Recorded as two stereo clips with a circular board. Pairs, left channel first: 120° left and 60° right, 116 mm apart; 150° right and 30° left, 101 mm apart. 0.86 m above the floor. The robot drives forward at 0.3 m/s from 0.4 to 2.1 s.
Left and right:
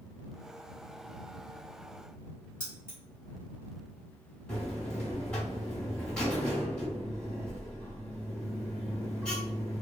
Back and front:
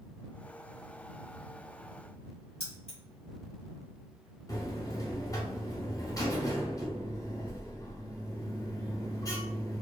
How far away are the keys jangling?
About 1.9 m.